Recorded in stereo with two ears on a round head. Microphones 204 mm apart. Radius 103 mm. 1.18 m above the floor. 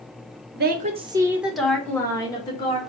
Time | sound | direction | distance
0.5 | a woman speaking | 50° right (ahead or behind) | 0.8 m